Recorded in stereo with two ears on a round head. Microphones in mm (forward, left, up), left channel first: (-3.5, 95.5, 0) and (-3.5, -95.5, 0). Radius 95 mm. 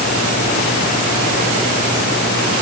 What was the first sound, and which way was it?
Only background noise.